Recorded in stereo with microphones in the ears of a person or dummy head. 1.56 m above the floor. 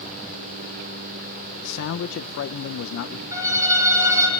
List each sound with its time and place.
1.6 s a man speaking: 65° left (ahead or behind), 0.9 m
3.3 s a violin: 20° right (ahead or behind), 5.5 m